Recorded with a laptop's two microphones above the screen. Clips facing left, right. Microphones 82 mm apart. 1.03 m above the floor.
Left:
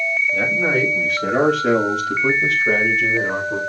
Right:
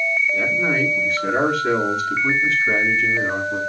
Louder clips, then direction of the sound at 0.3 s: Left 1 dB; 80° left.